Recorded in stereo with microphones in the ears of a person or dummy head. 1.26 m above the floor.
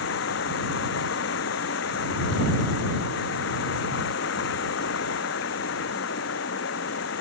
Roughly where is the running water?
Left.